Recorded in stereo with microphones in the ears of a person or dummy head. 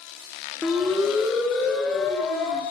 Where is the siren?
Centre (ahead or behind), 3.5 m; by 2.6 s 5° left (ahead or behind), 5.5 m.